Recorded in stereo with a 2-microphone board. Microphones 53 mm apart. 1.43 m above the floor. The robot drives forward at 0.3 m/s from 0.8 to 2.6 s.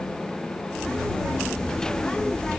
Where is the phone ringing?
I don't hear a phone ringing.